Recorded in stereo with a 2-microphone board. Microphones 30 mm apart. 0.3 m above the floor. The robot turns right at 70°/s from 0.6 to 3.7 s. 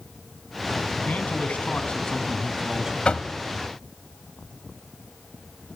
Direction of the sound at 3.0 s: 35° left (ahead or behind).